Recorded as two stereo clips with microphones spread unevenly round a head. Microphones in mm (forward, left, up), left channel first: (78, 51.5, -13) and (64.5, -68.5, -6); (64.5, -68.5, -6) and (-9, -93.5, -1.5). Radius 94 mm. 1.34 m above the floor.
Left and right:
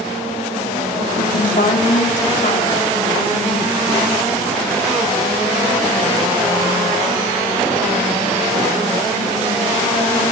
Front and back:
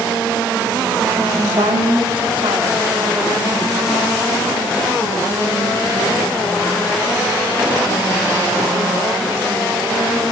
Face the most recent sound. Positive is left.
turn(degrees=140)